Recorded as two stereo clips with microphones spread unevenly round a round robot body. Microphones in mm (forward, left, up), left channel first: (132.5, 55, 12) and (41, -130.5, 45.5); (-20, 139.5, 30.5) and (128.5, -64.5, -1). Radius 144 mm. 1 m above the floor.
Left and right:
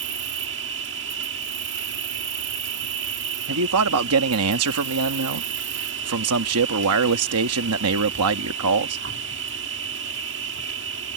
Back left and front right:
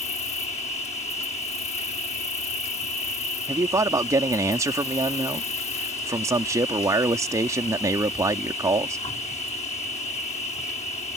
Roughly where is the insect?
Behind.